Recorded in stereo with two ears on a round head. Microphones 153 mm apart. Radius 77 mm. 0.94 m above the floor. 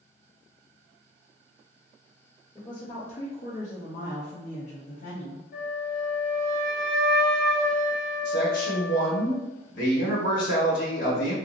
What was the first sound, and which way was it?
A woman speaking, 25° left (ahead or behind).